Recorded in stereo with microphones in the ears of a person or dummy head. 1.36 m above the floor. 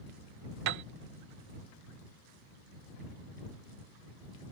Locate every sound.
0.7 s a piano: 60° right (ahead or behind)